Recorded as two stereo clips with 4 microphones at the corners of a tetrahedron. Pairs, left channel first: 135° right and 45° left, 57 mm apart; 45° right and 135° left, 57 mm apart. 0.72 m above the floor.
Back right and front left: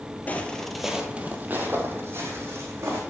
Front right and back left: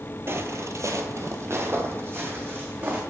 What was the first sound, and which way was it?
Footsteps, 170° left.